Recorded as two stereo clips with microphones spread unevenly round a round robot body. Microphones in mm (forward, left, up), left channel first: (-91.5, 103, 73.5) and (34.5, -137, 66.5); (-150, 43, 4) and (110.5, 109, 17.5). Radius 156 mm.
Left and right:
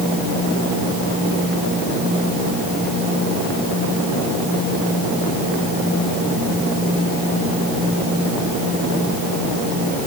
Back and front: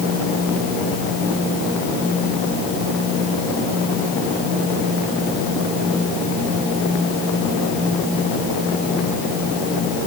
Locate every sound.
Only background noise.